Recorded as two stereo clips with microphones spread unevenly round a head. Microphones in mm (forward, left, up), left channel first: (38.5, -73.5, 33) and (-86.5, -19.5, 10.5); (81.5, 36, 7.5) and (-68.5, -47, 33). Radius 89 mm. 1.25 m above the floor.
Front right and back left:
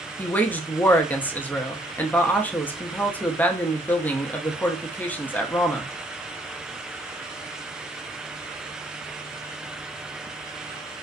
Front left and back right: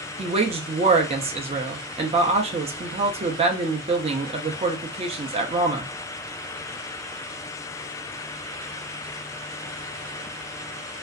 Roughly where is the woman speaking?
Right.